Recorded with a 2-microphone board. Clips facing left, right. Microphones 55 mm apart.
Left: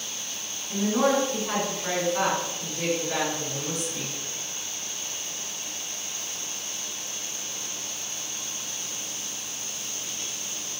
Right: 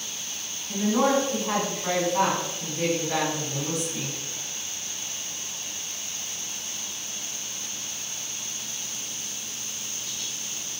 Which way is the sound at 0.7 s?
25° right (ahead or behind).